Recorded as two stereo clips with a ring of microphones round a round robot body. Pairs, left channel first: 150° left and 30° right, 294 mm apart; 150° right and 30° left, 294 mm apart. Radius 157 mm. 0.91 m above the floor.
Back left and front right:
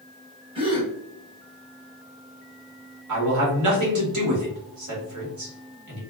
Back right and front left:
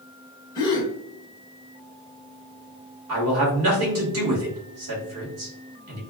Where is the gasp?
85° right, 0.7 m.